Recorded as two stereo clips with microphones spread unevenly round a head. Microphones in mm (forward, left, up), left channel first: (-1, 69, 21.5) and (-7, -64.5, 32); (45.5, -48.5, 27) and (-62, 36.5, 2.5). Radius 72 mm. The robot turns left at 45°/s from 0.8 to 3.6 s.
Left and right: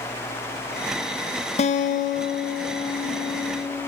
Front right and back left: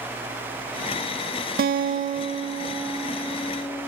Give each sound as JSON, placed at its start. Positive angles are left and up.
{"t": 1.6, "sound": "a guitar", "azimuth_deg": 130, "distance_m": 0.5}